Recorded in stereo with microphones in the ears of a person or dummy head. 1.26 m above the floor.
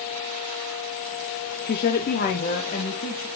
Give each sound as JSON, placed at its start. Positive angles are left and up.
{"t": 1.7, "sound": "a woman speaking", "side_deg": 40, "distance_m": 0.6}